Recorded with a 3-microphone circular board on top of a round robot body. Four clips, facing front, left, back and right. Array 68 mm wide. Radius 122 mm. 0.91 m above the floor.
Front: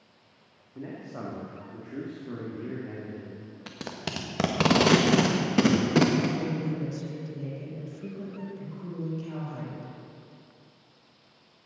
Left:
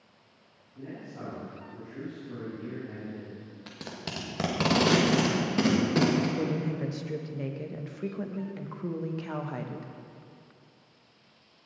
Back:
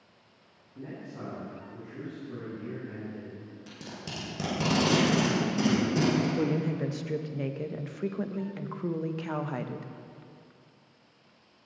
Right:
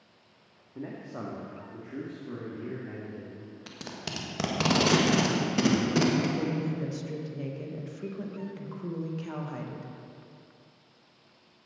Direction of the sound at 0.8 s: 70° right.